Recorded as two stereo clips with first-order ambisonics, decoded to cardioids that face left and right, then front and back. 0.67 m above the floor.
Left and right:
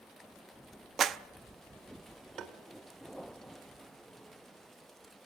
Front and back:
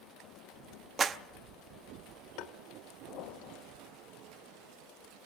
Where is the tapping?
30° right, 1.3 m.